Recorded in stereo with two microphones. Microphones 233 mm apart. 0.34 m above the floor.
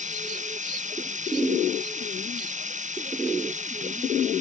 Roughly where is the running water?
Right.